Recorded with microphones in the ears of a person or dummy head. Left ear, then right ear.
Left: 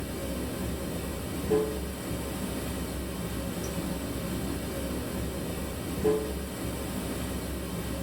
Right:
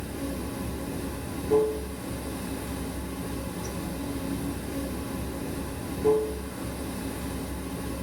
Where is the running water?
25° left (ahead or behind), 1.2 m.